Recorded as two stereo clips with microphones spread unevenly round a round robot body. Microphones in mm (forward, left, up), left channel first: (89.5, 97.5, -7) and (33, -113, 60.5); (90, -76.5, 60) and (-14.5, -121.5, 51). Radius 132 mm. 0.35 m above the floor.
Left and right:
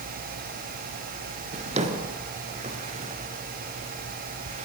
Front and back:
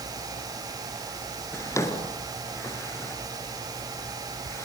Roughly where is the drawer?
Ahead right.